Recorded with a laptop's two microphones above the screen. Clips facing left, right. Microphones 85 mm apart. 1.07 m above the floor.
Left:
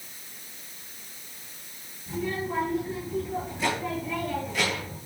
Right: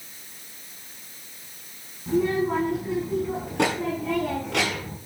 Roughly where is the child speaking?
Right.